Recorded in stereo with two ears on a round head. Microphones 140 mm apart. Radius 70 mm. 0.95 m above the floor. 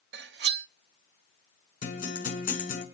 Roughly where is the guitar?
Left.